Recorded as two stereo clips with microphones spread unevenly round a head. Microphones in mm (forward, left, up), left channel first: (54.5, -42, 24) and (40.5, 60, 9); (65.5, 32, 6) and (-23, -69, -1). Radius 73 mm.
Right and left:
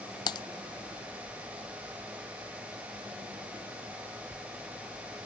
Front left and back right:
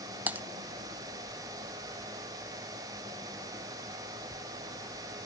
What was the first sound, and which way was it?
Typing on a keyboard, 55° right.